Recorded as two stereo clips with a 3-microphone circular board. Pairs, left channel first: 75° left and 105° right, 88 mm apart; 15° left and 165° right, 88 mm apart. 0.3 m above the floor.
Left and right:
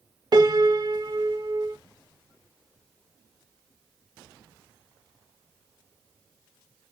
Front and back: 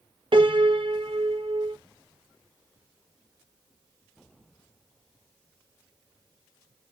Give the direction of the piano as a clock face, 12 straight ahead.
5 o'clock.